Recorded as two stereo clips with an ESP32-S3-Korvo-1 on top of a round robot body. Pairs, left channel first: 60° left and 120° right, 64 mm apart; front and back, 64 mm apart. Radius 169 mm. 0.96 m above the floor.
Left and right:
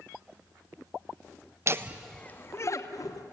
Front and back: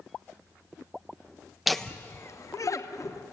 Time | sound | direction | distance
1.7 | laughter | 95° right | 0.9 m